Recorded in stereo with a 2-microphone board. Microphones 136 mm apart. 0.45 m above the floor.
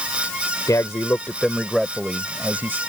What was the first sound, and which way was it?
A man speaking, 25° left (ahead or behind).